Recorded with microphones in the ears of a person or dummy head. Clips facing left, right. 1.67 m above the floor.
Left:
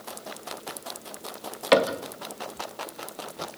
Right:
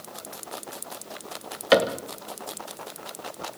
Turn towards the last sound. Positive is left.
turn(degrees=-5)  # may be behind; listen again after turning